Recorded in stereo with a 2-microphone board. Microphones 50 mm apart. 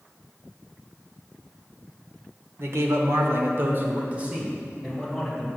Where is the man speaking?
60° right (ahead or behind), 1.3 m; by 5.5 s 5° right (ahead or behind), 2 m.